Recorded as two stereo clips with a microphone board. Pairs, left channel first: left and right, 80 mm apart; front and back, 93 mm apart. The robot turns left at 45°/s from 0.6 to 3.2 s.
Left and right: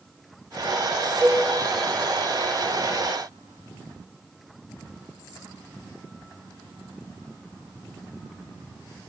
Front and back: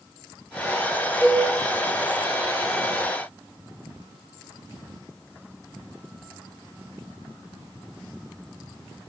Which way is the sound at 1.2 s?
55° right.